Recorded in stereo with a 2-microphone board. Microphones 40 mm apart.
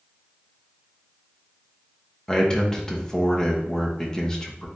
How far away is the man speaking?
About 1.0 m.